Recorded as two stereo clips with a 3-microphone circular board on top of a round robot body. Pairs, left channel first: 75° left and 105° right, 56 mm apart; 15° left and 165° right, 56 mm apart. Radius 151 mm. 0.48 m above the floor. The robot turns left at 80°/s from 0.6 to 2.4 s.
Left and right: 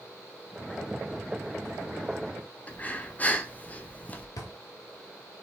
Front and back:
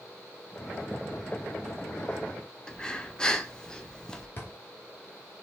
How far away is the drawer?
About 1.1 m.